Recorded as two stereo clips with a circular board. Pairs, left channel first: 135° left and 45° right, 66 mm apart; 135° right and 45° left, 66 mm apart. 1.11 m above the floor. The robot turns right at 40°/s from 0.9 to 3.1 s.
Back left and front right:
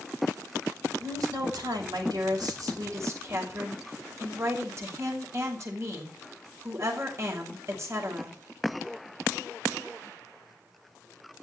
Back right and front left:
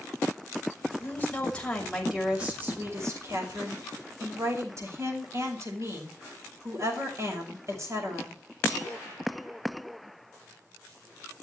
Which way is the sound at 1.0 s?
80° right.